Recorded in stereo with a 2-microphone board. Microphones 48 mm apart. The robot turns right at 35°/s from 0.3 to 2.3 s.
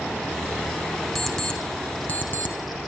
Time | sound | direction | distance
1.1 | an alarm clock | centre (ahead or behind) | 2.5 m